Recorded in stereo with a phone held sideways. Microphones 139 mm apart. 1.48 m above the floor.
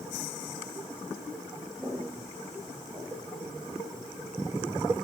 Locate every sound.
1.8 s footsteps: 5° right (ahead or behind), 6 m; by 3.8 s 15° right (ahead or behind), 5.5 m